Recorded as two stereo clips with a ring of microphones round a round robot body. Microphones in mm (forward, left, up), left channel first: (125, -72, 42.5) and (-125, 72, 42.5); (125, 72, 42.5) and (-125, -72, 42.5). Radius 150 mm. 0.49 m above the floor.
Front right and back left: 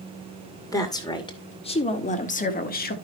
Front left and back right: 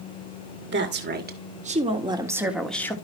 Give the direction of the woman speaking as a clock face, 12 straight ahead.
4 o'clock.